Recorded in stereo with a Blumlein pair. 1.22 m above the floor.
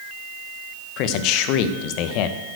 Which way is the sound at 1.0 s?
40° left.